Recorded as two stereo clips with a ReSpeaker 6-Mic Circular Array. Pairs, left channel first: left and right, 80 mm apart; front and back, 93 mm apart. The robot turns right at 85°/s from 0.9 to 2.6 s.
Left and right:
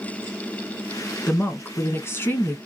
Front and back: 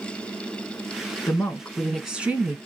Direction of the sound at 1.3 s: 30° left.